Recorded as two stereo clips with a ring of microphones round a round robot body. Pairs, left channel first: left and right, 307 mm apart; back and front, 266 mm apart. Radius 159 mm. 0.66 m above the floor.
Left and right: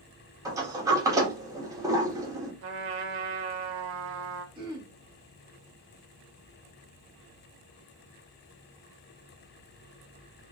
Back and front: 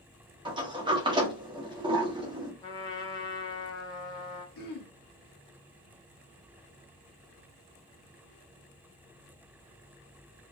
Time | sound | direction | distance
0.5 | a sliding door | 30° right | 0.9 m
2.6 | a trumpet | 110° right | 0.8 m
4.5 | throat clearing | 165° right | 0.9 m